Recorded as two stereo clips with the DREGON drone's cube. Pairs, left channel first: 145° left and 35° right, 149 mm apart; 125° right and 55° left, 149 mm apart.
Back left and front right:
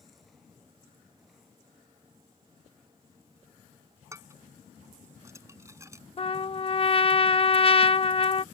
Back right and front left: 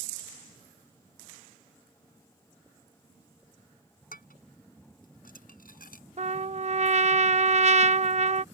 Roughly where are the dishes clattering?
Right.